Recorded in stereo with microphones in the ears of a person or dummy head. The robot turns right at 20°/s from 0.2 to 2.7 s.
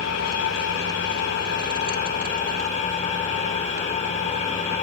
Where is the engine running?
95° left, 4 m; by 4.8 s 145° left, 4 m.